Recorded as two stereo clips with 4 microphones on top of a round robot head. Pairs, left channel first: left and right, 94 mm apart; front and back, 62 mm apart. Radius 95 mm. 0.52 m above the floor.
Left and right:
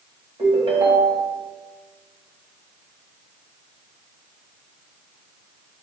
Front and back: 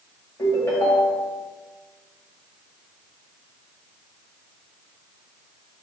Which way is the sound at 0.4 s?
50° right.